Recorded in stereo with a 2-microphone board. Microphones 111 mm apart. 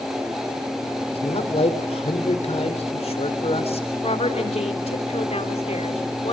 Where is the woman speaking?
70° left (ahead or behind), 3 m.